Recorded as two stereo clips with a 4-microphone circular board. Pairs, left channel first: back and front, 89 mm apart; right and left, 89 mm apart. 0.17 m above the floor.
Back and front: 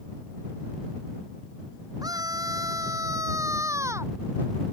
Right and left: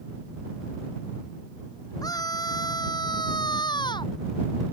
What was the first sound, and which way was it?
A scream, 45° right.